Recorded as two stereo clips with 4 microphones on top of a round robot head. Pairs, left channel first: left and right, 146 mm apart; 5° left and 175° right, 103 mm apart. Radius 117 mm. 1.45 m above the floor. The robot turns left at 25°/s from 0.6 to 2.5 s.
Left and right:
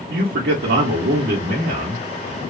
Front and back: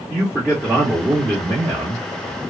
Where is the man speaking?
95° right, 0.7 m; by 2.0 s 130° right, 0.7 m.